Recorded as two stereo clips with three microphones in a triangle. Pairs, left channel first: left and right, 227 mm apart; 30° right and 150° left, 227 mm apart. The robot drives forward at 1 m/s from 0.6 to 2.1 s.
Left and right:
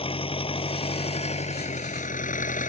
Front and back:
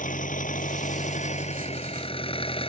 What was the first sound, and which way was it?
An engine running, 25° left.